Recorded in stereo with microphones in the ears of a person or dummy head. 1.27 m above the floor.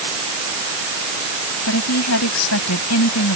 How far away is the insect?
I don't hear an insect.